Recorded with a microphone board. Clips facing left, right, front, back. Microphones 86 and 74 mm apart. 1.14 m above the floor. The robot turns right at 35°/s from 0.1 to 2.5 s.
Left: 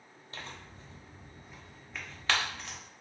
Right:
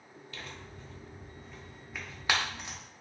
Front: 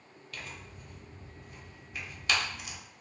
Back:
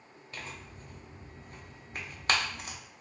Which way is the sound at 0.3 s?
130° left.